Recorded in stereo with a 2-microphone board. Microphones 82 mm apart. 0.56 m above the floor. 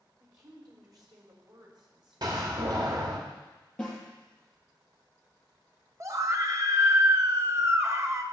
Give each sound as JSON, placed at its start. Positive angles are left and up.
{"t": 0.2, "sound": "a woman speaking", "side_deg": -45, "distance_m": 1.7}
{"t": 2.2, "sound": "a door slam", "side_deg": -55, "distance_m": 1.4}
{"t": 3.8, "sound": "a snare drum", "side_deg": 10, "distance_m": 5.0}
{"t": 6.0, "sound": "a scream", "side_deg": -40, "distance_m": 1.0}